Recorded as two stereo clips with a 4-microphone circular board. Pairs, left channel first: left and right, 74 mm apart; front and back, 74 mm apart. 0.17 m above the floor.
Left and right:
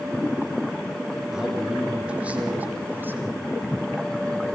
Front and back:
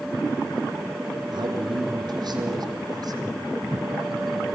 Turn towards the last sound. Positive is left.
turn(degrees=-150)